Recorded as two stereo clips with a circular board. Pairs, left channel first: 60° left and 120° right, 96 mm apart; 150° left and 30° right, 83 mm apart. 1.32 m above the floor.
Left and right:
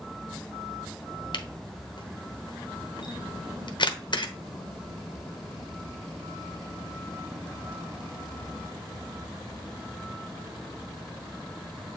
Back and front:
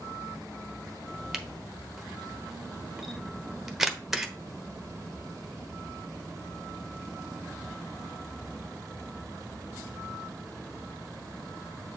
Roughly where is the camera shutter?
Ahead left.